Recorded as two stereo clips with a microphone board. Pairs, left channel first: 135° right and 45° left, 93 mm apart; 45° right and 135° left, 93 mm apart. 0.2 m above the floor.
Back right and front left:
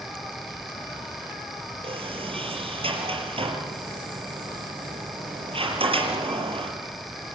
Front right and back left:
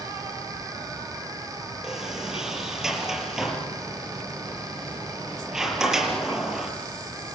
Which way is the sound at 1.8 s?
50° left.